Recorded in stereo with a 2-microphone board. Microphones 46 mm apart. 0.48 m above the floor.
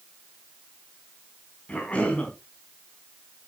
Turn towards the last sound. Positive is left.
turn(degrees=25)  # may be behind; listen again after turning